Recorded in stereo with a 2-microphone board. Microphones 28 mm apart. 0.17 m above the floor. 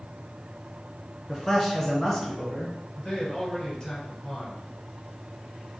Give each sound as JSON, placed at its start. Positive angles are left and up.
{"t": 1.3, "sound": "a man speaking", "side_deg": 15, "distance_m": 2.0}
{"t": 3.0, "sound": "a man speaking", "side_deg": 25, "distance_m": 1.8}